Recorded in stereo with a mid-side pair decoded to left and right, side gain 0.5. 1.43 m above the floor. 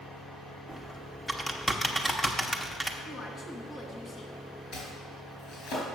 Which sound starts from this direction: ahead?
Typing on a keyboard, at 0.7 s.